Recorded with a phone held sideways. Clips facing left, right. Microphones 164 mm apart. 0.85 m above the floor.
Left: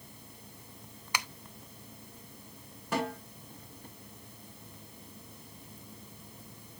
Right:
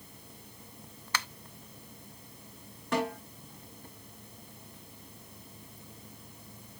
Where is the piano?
No piano in this recording.